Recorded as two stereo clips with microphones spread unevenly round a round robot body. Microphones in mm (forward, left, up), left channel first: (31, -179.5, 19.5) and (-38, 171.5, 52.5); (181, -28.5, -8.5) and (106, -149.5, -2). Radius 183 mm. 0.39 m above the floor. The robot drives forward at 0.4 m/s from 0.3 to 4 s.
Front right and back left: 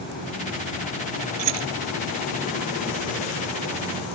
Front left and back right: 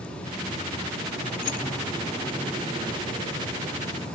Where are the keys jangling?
100° left; by 1.7 s 105° left.